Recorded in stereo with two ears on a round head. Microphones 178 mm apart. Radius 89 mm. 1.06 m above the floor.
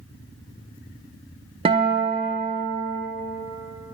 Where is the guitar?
30° right (ahead or behind), 0.7 m.